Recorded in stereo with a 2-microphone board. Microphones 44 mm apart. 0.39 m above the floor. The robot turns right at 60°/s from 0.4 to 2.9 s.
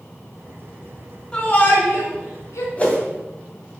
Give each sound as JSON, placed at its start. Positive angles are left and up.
{"t": 1.3, "sound": "a shout", "side_deg": 20, "distance_m": 3.5}
{"t": 2.8, "sound": "a whoosh", "side_deg": 25, "distance_m": 2.5}